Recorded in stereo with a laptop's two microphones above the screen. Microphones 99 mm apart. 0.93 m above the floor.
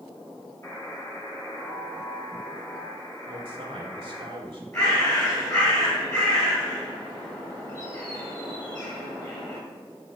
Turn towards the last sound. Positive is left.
turn(degrees=35)  # may be behind; listen again after turning